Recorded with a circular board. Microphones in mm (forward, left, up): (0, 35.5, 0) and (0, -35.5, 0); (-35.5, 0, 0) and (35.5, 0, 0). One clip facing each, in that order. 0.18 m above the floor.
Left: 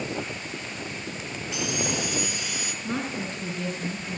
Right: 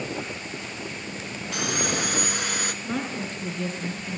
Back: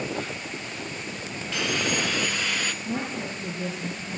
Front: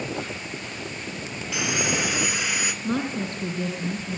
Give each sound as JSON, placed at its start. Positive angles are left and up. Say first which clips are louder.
{"t": 1.5, "sound": "sawing", "louder": "right 2 dB, front 1 dB", "azimuth_deg": -75, "distance_m": 1.2}
{"t": 2.8, "sound": "a woman speaking", "louder": "left 4 dB, front 4 dB", "azimuth_deg": 5, "distance_m": 4.5}